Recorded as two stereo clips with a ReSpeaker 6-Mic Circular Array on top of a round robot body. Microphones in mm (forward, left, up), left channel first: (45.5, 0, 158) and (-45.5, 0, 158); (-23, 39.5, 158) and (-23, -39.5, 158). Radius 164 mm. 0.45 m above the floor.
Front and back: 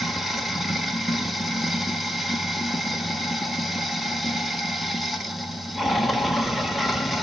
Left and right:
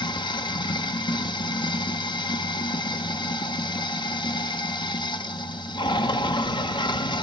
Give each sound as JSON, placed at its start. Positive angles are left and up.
{"t": 0.0, "sound": "running water", "azimuth_deg": 90, "distance_m": 1.4}